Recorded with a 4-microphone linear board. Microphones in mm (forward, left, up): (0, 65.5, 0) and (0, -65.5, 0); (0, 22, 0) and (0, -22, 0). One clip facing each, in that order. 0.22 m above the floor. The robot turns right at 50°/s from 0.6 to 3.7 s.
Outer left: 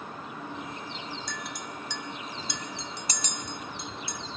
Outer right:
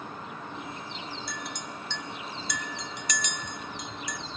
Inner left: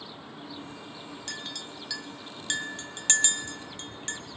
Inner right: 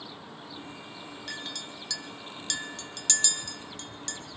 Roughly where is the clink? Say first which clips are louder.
Even, inner right 1 dB; centre.